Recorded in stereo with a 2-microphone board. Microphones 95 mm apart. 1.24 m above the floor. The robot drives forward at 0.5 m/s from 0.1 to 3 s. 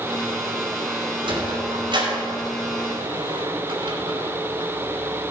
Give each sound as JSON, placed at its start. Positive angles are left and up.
{"t": 1.2, "sound": "a sliding door", "side_deg": -60, "distance_m": 3.0}